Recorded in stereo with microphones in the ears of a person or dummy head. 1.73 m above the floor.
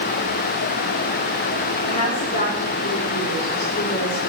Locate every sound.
1.9 s a woman speaking: 40° left (ahead or behind), 3.5 m